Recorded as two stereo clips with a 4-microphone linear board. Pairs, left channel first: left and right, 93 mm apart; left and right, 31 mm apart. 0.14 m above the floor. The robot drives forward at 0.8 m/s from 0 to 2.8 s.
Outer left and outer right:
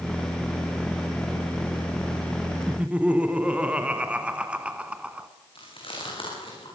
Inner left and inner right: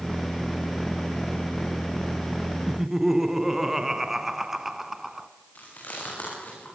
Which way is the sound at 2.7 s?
15° right (ahead or behind).